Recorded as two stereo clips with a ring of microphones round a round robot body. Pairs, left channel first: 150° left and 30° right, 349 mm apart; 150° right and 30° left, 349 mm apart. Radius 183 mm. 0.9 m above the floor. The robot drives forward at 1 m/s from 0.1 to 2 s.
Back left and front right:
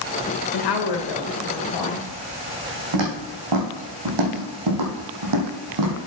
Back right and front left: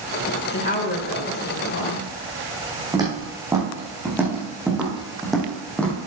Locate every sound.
0.5 s a woman speaking: 155° left, 1.1 m; by 2.1 s 170° left, 2.5 m
2.9 s footsteps: 50° right, 4 m; by 6.0 s 65° right, 2.5 m